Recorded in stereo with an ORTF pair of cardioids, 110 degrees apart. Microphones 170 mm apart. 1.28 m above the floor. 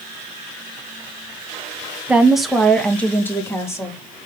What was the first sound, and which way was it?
A woman speaking, 10° right.